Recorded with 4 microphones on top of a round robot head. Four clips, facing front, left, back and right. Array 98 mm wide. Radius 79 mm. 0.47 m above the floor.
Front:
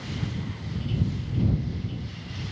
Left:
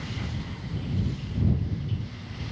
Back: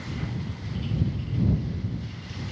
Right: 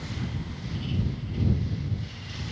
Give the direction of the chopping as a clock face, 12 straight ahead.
No chopping in this recording.